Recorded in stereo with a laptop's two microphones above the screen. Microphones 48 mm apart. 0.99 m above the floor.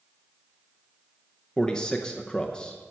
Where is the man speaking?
15° left (ahead or behind), 0.7 m.